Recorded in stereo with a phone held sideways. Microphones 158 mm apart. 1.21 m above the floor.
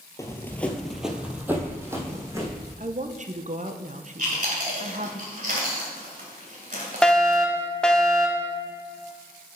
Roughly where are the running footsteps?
Centre.